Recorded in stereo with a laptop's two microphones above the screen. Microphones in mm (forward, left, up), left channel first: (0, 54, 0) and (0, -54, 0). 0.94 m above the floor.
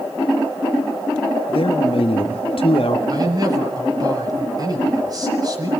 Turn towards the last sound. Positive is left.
turn(degrees=-40)  # may be behind; listen again after turning